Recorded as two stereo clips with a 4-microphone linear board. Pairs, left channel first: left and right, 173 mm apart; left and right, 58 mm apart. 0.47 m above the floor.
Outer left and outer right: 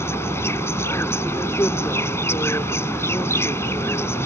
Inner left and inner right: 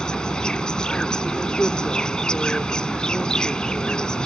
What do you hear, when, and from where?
0.0 s an insect: 15° left (ahead or behind)